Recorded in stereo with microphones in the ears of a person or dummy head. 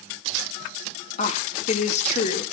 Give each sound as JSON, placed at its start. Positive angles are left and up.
{"t": 1.2, "sound": "a woman speaking", "side_deg": 35, "distance_m": 3.0}